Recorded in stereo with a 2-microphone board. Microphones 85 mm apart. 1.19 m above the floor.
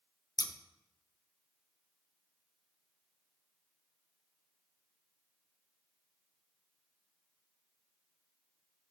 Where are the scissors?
50° left (ahead or behind), 0.6 m.